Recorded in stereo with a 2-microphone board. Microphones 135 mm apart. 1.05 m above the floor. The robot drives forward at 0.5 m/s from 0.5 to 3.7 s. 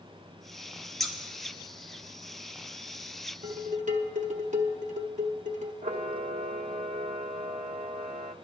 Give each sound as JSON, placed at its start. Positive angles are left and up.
{"t": 1.0, "sound": "scissors", "side_deg": 0, "distance_m": 1.1}
{"t": 3.4, "sound": "dishes clattering", "side_deg": -75, "distance_m": 1.0}
{"t": 5.8, "sound": "a camera shutter", "side_deg": -65, "distance_m": 0.6}